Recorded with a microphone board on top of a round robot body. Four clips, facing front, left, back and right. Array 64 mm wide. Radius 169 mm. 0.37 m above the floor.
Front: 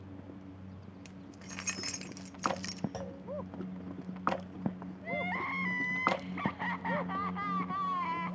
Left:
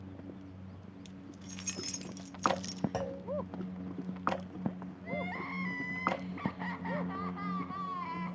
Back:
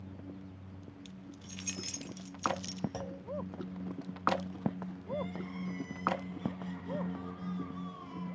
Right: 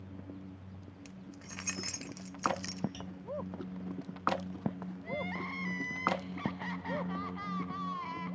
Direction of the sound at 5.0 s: Straight ahead.